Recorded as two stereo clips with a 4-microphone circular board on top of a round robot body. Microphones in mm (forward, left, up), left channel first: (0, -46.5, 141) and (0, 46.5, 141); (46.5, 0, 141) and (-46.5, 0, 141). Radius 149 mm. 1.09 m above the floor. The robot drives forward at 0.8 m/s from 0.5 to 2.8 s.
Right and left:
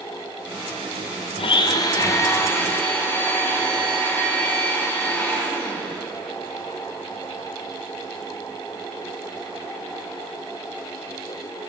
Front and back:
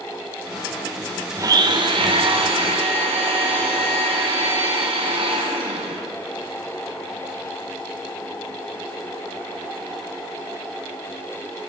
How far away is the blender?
About 0.6 m.